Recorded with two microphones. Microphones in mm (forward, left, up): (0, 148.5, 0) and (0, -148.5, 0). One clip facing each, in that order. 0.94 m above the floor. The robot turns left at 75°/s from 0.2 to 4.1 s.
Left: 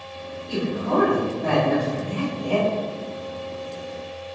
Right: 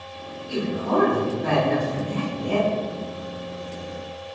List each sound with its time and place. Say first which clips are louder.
0.5 s a man speaking: even; 60° left, 1.3 m; by 2.7 s 110° right, 1.3 m